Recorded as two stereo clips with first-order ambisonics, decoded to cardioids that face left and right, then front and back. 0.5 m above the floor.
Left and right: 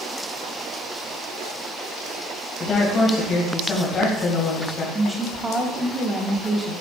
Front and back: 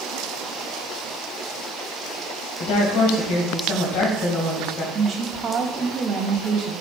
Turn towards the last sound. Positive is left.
turn(degrees=-125)